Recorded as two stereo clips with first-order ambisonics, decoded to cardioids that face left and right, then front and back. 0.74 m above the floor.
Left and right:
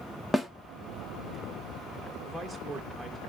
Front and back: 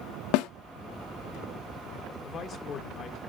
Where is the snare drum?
5° left, 0.6 m.